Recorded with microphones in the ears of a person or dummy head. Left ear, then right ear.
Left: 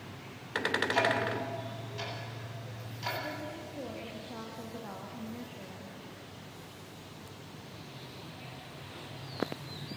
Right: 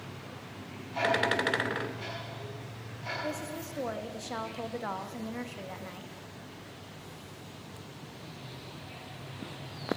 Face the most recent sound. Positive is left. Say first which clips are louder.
# right 3 dB
turn(degrees=-60)  # may be behind; listen again after turning